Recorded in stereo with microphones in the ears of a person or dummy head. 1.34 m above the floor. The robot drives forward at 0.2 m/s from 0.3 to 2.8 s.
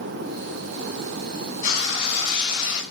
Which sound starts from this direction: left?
Frying, at 1.6 s.